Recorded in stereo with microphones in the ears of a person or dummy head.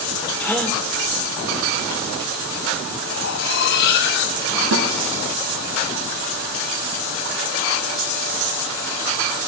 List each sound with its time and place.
0.4 s a gasp: 10° left (ahead or behind), 3.5 m
3.1 s cutlery clinking: 65° left (ahead or behind), 2.0 m
4.7 s a snare drum: 70° right (ahead or behind), 3.5 m